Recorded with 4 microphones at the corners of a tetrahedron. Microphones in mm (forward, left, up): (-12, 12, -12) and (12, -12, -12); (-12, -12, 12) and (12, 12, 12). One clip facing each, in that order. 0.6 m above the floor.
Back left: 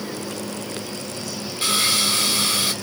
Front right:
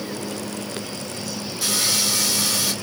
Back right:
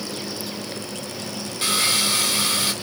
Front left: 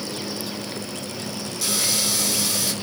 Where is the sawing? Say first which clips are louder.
Back left 3 dB, back right 4 dB; straight behind, 2 m.